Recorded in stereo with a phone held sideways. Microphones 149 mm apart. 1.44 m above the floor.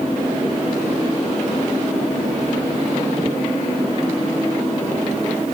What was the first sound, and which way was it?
Only background noise.